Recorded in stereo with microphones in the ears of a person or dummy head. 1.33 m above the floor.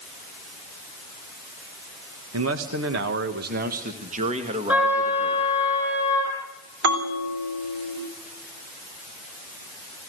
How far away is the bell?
About 4.5 m.